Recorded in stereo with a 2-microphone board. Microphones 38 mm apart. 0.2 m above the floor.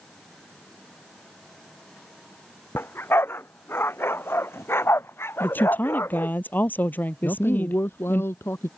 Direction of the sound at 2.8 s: 70° left (ahead or behind).